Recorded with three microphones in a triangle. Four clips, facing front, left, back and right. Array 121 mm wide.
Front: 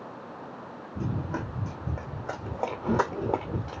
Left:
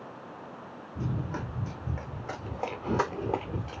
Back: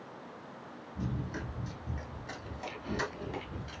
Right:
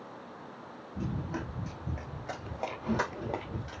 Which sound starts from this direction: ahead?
Running footsteps, at 0.9 s.